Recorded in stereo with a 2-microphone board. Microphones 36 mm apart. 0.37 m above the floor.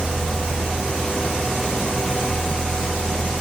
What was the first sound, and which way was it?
Only background noise.